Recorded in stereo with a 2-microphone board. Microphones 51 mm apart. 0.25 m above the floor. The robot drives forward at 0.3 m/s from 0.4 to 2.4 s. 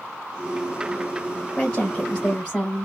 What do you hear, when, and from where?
1.6 s a woman speaking: 15° left (ahead or behind), 1.6 m; by 2.9 s 10° left (ahead or behind), 1.7 m